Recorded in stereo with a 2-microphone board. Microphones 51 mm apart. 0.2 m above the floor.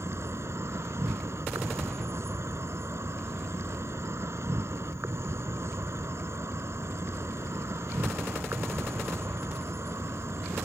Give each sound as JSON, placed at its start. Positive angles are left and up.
{"t": 0.0, "sound": "an insect", "side_deg": -65}